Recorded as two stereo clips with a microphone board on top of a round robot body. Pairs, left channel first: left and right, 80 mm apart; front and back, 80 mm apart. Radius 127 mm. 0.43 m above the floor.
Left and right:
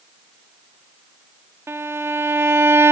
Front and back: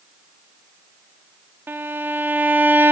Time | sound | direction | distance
1.7 | a violin | 130° right | 0.8 m